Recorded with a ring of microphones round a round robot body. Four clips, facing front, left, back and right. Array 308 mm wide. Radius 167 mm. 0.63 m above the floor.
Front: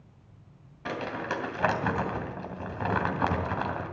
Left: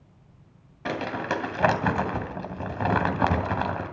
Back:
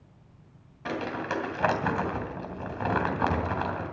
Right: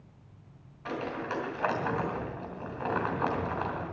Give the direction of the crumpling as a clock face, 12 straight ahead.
9 o'clock.